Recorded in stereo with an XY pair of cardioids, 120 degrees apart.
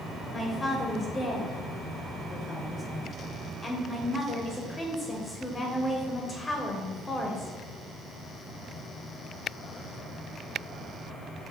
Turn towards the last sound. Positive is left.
turn(degrees=20)